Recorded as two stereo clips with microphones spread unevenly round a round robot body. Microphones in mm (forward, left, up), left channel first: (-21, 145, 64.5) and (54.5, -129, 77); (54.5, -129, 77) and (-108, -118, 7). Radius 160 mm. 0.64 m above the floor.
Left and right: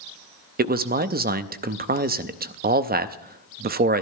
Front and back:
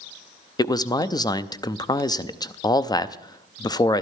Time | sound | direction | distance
0.6 | a man speaking | 95° right | 0.7 m